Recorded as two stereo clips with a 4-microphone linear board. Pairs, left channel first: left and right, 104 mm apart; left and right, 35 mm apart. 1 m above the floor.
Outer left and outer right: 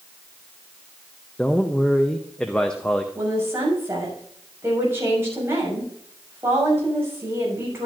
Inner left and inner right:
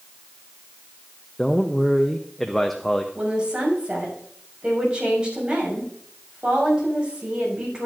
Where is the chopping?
I don't hear chopping.